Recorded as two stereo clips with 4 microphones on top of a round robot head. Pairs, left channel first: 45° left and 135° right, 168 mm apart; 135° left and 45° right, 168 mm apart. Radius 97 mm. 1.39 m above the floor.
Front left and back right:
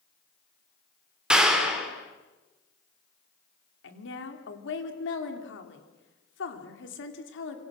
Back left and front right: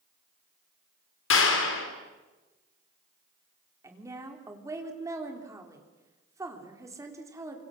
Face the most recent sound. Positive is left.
turn(degrees=30)